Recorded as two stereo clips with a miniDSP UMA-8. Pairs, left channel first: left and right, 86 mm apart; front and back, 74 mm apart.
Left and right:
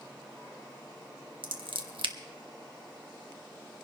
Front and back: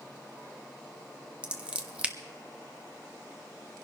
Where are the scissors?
105° right, 1.1 m.